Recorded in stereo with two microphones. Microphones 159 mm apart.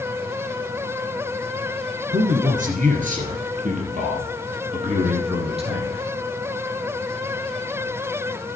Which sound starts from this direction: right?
A man speaking, at 2.1 s.